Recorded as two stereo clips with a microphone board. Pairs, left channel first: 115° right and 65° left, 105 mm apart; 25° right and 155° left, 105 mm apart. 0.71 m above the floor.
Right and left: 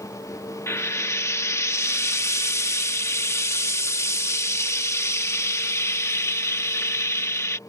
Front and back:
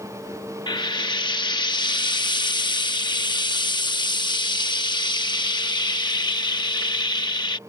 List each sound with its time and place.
0.7 s frying: 55° right